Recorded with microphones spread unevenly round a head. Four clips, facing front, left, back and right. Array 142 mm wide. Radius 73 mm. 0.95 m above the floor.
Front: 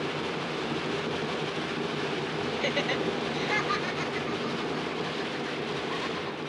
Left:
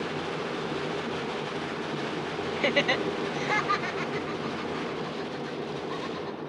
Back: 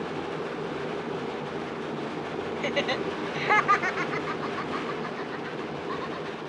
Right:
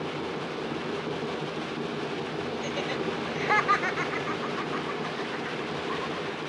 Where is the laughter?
85° left, 0.8 m; by 6.4 s 135° right, 4.5 m.